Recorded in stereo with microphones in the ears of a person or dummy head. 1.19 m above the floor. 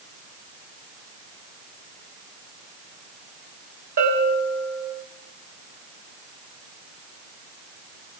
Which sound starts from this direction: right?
A bell, at 4.0 s.